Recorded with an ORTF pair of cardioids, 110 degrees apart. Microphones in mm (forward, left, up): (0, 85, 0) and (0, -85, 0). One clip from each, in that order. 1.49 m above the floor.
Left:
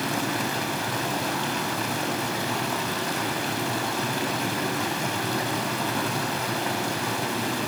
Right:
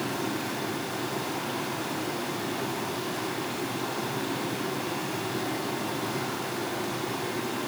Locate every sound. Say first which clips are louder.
0.0 s running water: left 4 dB; 65° left, 7 m